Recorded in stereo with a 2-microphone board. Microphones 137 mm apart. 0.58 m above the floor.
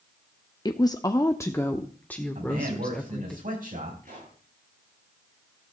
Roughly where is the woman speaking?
Left.